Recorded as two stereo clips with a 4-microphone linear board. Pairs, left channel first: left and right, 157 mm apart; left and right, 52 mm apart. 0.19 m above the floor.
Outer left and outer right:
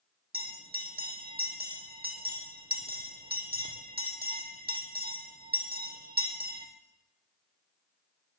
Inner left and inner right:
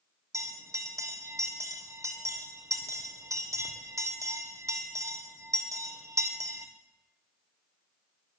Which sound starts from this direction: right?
A bell, at 0.3 s.